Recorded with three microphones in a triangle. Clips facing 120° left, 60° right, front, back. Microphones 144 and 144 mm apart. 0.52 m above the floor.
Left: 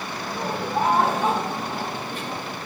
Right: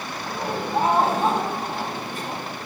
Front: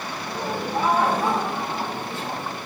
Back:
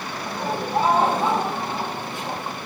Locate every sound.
0.2 s laughter: 130° right, 3.5 m; by 2.6 s 100° right, 4.5 m